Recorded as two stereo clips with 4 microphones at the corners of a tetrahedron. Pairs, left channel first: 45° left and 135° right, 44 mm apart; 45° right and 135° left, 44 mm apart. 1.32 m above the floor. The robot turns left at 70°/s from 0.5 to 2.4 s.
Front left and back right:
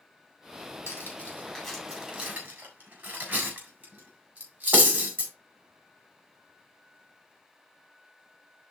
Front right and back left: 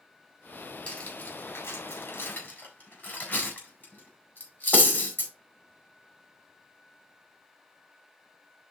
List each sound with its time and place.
0.9 s cutlery clinking: 10° left, 4 m; by 5.3 s 95° right, 4 m